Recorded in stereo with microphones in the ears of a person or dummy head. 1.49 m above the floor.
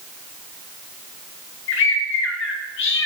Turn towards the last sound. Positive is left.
turn(degrees=70)  # may be behind; listen again after turning